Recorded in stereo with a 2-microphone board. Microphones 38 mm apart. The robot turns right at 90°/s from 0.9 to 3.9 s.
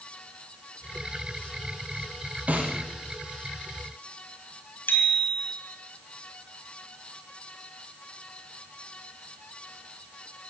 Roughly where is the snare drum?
Right.